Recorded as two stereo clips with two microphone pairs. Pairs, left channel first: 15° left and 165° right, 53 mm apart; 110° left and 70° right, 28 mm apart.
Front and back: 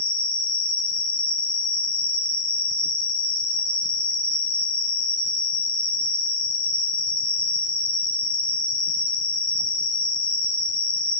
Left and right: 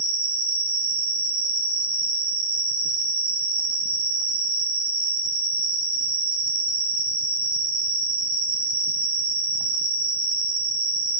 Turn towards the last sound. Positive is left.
turn(degrees=-130)